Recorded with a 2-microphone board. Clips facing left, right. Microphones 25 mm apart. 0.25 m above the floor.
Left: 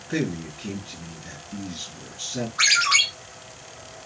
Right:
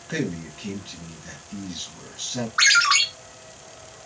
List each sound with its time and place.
0.1 s a man speaking: 50° right (ahead or behind), 1.7 m
2.6 s a ringtone: 70° right (ahead or behind), 2 m